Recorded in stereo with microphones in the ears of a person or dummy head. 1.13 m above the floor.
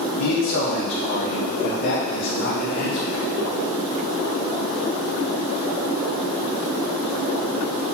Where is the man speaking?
65° left (ahead or behind), 2.5 m.